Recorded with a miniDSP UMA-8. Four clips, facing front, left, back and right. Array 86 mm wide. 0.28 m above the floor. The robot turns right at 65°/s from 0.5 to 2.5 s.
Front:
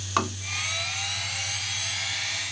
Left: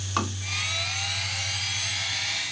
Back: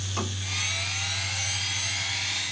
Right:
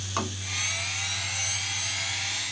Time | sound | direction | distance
0.2 | tapping | 15° left | 1.9 m